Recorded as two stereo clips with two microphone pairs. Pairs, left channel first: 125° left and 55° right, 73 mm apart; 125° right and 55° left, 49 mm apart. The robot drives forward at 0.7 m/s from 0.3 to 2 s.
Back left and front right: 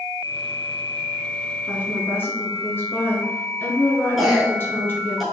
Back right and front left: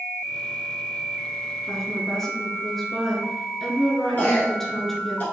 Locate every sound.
1.7 s a woman speaking: 145° left, 1.2 m; by 5.2 s 155° left, 1.3 m
4.2 s a cough: 140° right, 1.4 m